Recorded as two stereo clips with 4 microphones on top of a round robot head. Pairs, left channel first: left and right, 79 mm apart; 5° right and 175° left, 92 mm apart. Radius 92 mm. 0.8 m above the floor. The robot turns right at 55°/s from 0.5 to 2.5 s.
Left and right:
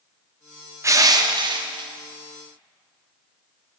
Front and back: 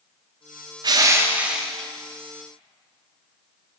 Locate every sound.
0.8 s crushing: 140° right, 1.2 m; by 1.9 s 85° right, 1.2 m